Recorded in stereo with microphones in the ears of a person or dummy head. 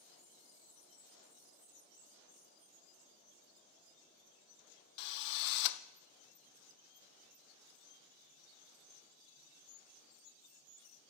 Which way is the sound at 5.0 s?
65° left (ahead or behind).